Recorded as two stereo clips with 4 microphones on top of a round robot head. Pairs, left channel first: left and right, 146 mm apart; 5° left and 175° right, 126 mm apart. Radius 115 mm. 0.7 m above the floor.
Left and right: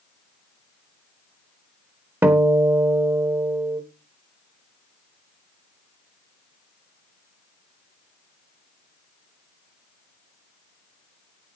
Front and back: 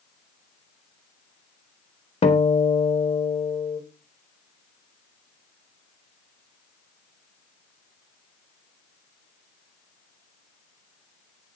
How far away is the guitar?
About 1.5 m.